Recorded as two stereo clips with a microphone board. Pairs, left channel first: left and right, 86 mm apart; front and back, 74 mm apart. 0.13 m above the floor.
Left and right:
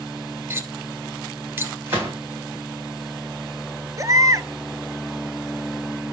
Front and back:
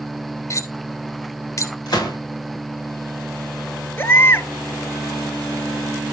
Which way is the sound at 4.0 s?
55° right.